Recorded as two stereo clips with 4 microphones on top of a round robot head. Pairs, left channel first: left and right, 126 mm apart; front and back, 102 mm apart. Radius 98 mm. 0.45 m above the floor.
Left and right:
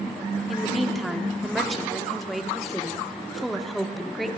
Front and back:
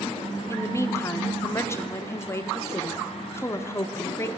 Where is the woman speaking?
Straight ahead, 0.8 m.